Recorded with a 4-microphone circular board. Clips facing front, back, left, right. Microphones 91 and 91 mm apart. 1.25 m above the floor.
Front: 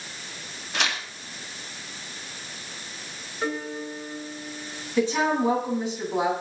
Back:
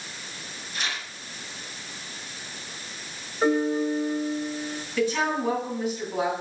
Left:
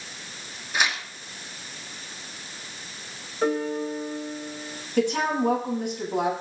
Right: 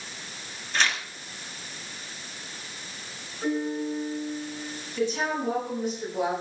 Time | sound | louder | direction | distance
0.7 | tearing paper | front 5 dB, left 1 dB | 15° left | 2 m
3.4 | a piano | back 8 dB, left 3 dB | 115° left | 3 m
5.0 | a woman speaking | front 3 dB, left 4 dB | 65° left | 8.5 m